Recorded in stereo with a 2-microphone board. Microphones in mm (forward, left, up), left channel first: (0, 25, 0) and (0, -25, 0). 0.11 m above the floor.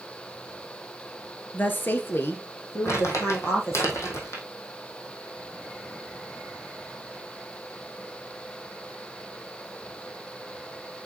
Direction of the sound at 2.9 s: 70° left (ahead or behind).